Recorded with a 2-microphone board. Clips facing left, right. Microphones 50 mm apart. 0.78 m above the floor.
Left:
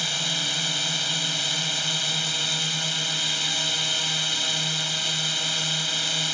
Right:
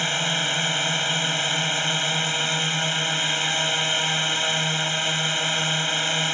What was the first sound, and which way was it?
A drone, 30° right (ahead or behind).